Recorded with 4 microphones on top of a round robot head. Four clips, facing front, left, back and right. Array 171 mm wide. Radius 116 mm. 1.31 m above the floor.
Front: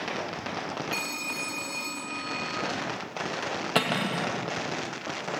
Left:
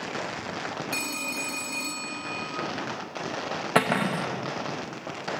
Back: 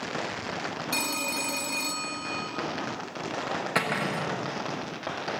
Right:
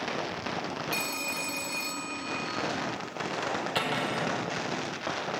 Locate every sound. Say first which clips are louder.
0.9 s a phone ringing: left 1 dB, back 3 dB; straight behind, 1.6 m
3.8 s cutlery clinking: left 10 dB, front 3 dB; 70° left, 0.9 m